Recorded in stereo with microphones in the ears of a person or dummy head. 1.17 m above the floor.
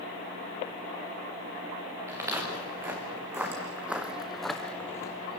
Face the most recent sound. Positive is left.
turn(degrees=25)  # may be behind; listen again after turning